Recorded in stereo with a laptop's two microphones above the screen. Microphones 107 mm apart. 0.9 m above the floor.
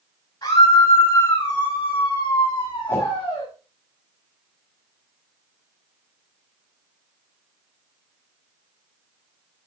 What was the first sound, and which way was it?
A scream, 45° left (ahead or behind).